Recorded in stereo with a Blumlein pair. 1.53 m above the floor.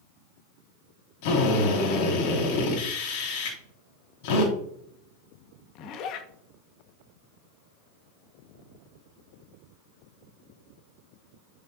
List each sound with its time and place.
1.2 s a drill: 50° left, 5 m
3.5 s a finger snap: 60° left, 5.5 m
5.8 s a zipper: 35° left, 1.7 m